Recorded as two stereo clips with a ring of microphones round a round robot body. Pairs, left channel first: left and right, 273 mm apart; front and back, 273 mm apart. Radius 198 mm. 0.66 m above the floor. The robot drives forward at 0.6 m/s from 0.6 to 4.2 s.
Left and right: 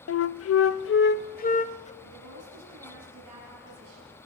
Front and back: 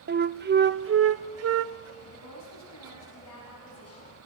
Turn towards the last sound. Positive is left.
turn(degrees=-55)